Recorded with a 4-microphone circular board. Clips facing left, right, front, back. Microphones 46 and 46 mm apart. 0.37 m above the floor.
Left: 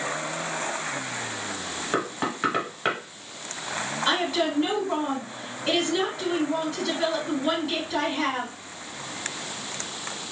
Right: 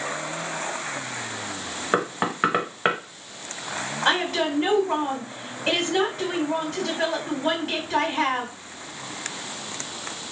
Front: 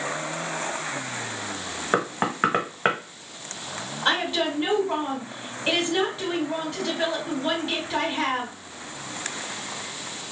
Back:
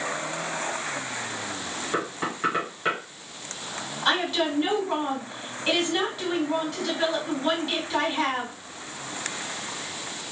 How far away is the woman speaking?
About 2.5 m.